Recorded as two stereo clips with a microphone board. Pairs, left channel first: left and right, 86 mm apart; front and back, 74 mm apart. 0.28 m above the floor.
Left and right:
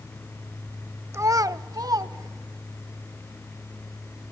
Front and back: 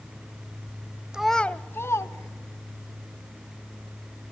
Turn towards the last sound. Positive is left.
turn(degrees=-40)